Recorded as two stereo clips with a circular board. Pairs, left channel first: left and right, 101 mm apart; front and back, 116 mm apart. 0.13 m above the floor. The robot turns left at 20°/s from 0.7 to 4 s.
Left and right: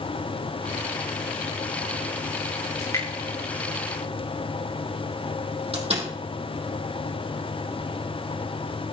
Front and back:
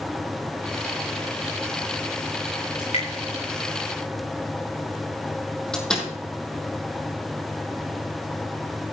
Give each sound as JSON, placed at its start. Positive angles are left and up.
{"t": 2.8, "sound": "dripping", "azimuth_deg": 35, "distance_m": 8.5}
{"t": 5.7, "sound": "a door slam", "azimuth_deg": -85, "distance_m": 4.5}